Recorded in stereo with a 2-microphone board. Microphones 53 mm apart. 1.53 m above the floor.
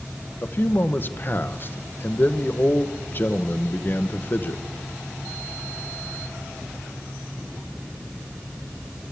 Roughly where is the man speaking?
Left.